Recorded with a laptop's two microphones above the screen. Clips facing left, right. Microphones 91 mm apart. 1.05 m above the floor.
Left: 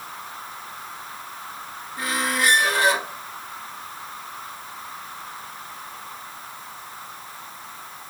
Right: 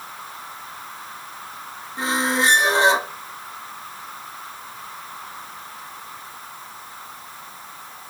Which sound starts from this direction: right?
A squeak, at 2.0 s.